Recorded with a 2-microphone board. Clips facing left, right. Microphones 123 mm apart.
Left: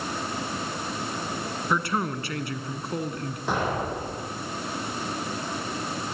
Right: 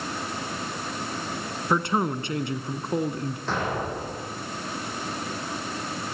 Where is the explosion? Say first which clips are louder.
Left 2 dB; 15° left (ahead or behind), 7 m.